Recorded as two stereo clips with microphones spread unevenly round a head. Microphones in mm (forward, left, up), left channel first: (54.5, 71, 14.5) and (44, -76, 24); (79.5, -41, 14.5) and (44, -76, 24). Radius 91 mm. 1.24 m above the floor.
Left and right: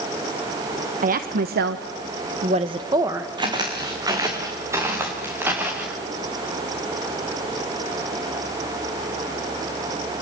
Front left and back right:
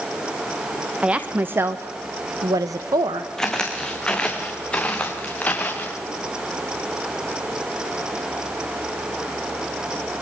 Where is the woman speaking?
65° right, 1.3 m; by 3.3 s 175° right, 1.5 m.